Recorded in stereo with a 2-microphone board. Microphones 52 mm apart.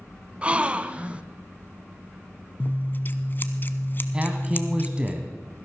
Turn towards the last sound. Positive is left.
turn(degrees=-20)  # may be behind; listen again after turning